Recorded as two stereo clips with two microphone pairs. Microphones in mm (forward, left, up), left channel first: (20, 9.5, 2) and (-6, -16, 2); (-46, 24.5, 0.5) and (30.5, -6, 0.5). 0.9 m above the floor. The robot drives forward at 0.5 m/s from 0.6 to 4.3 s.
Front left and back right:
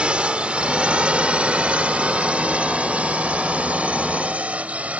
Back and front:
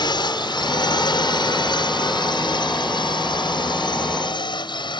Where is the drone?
165° left; by 5.0 s 175° left.